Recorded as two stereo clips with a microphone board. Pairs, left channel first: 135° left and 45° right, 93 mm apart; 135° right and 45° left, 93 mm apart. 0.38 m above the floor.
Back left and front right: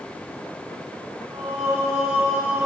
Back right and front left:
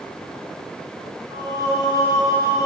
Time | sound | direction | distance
1.3 | singing | 15° left | 4 m